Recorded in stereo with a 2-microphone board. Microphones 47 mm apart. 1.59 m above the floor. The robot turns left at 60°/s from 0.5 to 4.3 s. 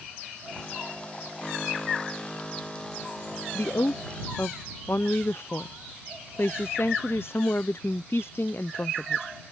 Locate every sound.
3.5 s a woman speaking: 110° left; by 9.2 s 65° left